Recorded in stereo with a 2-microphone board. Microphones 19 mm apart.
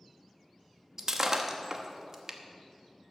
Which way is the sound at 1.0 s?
35° right (ahead or behind).